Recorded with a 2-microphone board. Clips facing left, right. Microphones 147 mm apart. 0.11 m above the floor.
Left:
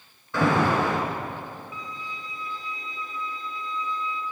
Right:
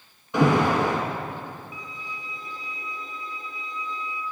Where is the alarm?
15° right (ahead or behind), 1.0 m.